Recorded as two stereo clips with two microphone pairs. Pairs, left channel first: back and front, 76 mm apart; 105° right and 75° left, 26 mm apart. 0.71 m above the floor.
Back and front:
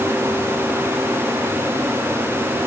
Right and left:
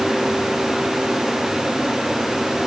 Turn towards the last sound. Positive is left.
No sound to turn to.